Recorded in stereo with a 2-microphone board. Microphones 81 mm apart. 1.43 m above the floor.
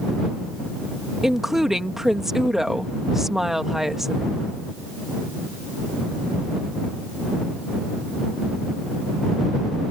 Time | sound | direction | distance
1.2 | a woman speaking | 5° right (ahead or behind) | ?